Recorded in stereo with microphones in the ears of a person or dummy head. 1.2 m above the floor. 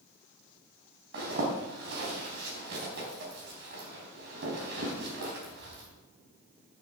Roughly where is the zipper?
Right.